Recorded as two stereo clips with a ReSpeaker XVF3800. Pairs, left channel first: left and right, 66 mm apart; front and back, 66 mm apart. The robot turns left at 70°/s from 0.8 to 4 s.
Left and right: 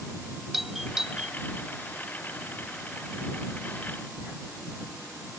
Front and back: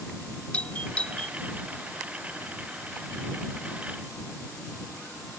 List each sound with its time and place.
0.5 s a doorbell: 10° right; by 1.4 s 50° right